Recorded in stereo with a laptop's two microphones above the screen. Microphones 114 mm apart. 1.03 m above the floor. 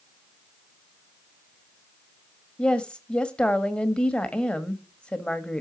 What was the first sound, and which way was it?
A woman speaking, 10° left (ahead or behind).